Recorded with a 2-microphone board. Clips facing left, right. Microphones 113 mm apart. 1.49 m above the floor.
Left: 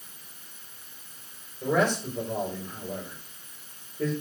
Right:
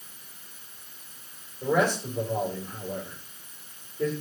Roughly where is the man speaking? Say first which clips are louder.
Even; centre.